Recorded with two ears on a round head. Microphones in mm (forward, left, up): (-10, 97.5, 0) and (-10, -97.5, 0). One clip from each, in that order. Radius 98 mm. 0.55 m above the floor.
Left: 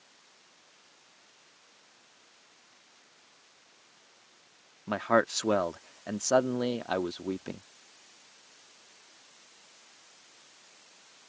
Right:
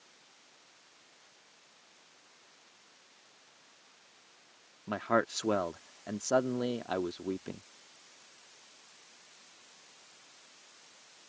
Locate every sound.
4.9 s a man speaking: 15° left (ahead or behind)